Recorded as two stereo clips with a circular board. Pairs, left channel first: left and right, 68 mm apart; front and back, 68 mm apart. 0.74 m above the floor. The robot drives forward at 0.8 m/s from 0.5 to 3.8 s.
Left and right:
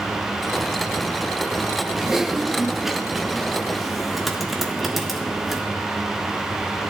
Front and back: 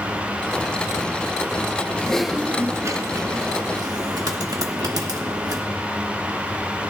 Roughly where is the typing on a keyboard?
Ahead.